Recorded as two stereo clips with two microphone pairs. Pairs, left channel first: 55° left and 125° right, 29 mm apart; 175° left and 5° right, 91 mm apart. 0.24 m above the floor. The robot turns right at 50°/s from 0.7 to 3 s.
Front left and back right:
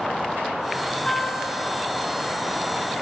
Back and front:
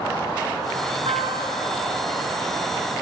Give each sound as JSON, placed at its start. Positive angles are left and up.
{"t": 1.1, "sound": "a guitar", "azimuth_deg": -10, "distance_m": 8.5}